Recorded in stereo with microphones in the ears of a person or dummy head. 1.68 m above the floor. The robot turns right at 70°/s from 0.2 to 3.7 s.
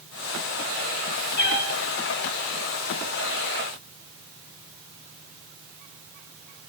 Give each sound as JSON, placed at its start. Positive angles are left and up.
{"t": 1.4, "sound": "a cat meowing", "side_deg": 60, "distance_m": 4.5}